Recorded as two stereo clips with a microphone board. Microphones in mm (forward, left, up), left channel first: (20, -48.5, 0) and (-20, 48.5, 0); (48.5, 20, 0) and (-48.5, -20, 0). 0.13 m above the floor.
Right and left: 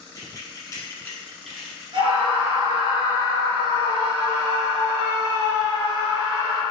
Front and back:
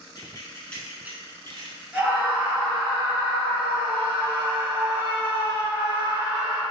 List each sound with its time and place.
0.1 s keys jangling: 20° right, 1.2 m; by 1.8 s 160° right, 1.3 m
1.9 s a scream: 130° left, 1.6 m